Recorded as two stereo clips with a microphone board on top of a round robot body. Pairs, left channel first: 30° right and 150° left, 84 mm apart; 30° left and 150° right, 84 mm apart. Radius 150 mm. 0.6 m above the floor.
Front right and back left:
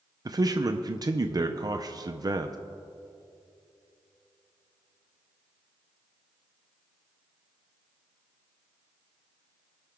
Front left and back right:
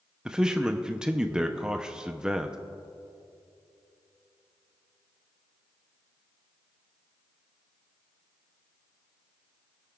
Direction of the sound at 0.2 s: 135° left.